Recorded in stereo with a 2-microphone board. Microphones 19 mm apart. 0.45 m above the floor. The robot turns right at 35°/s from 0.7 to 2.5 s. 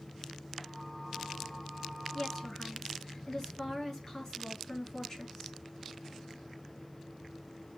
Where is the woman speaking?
40° left (ahead or behind), 6 m; by 5.5 s 30° left (ahead or behind), 6 m.